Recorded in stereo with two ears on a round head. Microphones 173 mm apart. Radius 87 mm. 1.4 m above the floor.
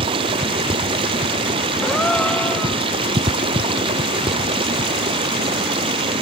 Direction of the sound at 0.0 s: 25° right (ahead or behind).